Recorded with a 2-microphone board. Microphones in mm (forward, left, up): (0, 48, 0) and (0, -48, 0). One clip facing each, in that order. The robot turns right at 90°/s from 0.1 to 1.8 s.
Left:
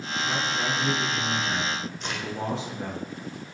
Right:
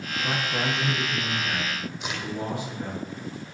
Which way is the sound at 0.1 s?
125° right.